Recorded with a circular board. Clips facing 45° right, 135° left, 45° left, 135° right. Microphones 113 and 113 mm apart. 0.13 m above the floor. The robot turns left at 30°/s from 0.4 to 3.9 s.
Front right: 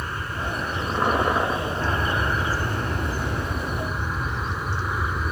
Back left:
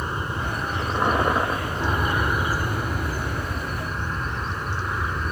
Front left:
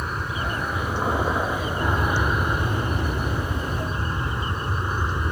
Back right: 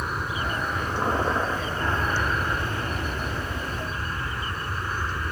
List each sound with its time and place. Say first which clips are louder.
0.0 s an aircraft: back left 2 dB, even; 140° left; by 5.3 s 35° left